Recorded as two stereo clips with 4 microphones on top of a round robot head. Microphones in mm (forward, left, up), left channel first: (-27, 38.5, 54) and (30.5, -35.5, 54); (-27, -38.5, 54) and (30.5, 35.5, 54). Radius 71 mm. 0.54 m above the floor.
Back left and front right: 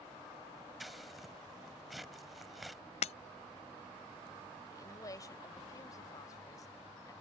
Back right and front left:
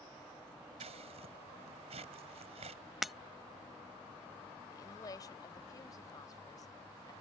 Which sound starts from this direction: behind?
A woman speaking, at 4.7 s.